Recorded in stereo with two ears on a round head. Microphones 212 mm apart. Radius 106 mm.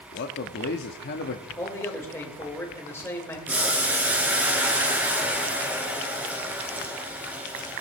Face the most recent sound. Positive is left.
turn(degrees=-5)  # may be behind; listen again after turning